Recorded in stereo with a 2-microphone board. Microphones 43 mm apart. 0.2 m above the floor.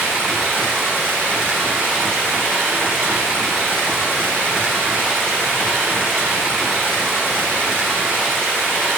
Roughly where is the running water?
Right.